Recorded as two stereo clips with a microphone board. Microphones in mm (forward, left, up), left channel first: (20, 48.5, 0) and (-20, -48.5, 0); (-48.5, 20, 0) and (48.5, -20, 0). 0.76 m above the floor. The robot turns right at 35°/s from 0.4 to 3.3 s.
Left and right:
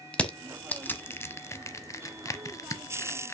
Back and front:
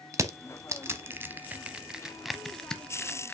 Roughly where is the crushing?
Ahead.